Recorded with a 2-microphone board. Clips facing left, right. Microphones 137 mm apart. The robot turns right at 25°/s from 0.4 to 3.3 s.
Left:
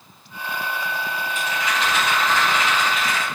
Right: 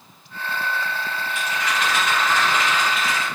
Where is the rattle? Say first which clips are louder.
Even; 140° left, 1.4 m; by 3.2 s 170° right, 1.4 m.